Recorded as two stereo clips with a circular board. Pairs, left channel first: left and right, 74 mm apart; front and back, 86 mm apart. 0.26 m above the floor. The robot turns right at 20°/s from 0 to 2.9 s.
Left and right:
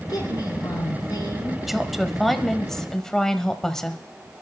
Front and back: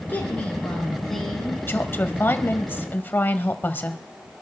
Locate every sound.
0.1 s a woman speaking: 65° left, 3.5 m; by 1.6 s 95° left, 3.5 m
1.7 s a woman speaking: 10° right, 1.1 m; by 4.0 s 15° left, 1.1 m